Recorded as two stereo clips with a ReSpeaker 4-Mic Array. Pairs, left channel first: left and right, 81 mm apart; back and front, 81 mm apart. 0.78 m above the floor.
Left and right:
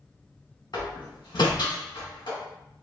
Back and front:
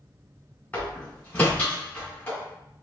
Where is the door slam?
110° left, 1.6 m.